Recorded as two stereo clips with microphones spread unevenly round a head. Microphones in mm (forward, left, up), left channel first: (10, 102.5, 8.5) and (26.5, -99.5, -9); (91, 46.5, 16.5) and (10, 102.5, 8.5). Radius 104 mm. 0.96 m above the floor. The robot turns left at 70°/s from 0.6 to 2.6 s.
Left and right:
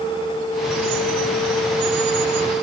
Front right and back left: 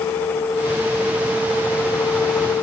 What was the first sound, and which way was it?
Only background noise.